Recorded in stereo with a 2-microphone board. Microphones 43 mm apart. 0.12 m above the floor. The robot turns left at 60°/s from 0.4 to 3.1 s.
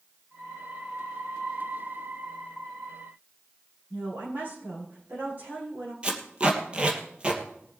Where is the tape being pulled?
25° right (ahead or behind), 2.5 m.